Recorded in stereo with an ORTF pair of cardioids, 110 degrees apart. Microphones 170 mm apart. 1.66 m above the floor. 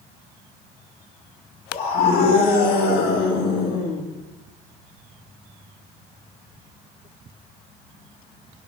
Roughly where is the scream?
Ahead left.